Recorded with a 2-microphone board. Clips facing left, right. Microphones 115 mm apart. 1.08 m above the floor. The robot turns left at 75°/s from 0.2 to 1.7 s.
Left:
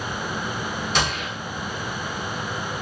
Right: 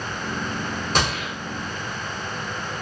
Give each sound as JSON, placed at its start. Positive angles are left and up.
{"t": 0.9, "sound": "a gunshot", "side_deg": -40, "distance_m": 1.1}